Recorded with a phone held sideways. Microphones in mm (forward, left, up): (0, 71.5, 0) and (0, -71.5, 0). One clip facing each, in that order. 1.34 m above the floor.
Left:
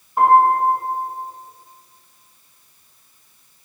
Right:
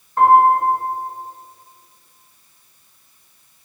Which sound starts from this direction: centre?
A piano, at 0.2 s.